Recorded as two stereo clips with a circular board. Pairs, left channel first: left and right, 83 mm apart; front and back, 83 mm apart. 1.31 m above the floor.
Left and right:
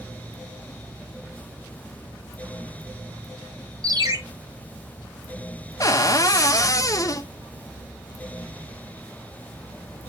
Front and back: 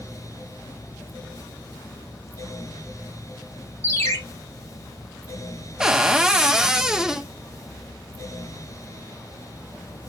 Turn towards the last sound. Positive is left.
turn(degrees=100)